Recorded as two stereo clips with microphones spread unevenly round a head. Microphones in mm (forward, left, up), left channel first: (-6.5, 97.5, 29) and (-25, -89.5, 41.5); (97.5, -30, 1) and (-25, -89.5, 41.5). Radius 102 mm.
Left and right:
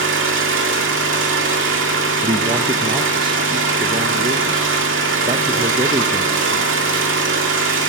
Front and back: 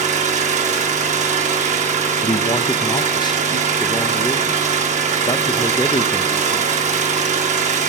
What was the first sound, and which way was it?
An engine running, 115° right.